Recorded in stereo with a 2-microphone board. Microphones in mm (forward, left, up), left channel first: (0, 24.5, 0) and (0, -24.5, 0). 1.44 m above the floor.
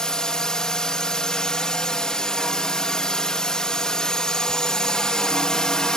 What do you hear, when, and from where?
0.0 s a drone: 10° left (ahead or behind)